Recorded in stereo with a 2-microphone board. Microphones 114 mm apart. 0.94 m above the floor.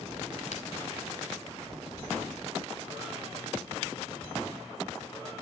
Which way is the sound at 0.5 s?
85° left.